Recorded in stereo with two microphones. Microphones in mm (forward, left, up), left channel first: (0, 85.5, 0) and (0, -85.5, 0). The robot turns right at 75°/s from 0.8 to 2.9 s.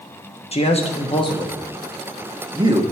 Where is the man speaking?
35° left (ahead or behind), 0.9 m; by 2.8 s 30° right (ahead or behind), 0.9 m.